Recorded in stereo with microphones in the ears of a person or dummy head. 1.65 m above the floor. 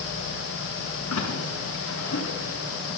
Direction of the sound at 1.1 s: 90° left.